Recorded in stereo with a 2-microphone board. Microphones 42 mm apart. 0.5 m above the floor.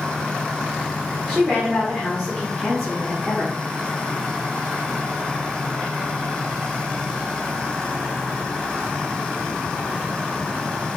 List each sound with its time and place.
1.3 s a woman speaking: 5° left (ahead or behind), 1.4 m